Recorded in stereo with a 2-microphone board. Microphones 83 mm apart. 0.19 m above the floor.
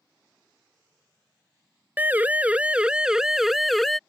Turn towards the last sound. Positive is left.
turn(degrees=5)  # may be behind; listen again after turning